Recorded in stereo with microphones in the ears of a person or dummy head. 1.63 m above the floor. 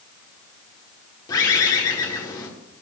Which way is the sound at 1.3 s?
20° left (ahead or behind).